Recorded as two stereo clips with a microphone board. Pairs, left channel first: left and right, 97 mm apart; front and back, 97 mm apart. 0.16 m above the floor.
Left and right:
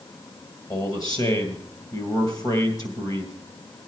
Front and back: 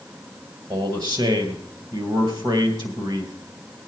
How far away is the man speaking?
About 2.5 m.